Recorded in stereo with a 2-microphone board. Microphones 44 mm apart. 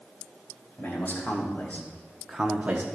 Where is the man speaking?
55° left (ahead or behind), 2.5 m; by 2.9 s 45° right (ahead or behind), 1.0 m.